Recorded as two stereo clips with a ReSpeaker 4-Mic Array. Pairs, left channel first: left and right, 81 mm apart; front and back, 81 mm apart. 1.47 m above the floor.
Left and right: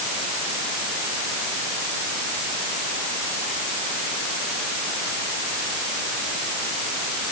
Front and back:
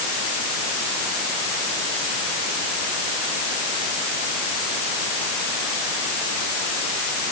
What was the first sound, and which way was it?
Only background noise.